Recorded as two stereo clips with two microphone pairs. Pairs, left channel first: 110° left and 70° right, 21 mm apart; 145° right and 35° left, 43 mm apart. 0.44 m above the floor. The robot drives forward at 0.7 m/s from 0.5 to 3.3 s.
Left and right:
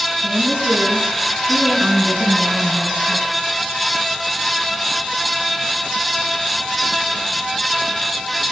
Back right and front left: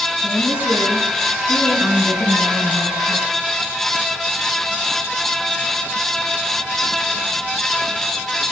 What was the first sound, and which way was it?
A woman speaking, 110° right.